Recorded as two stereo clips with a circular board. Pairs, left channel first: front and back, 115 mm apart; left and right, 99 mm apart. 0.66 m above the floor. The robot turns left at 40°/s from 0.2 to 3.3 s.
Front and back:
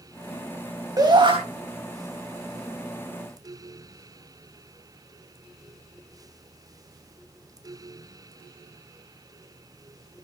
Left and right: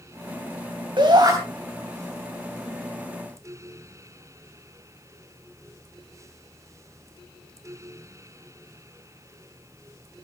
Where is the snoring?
No snoring in this recording.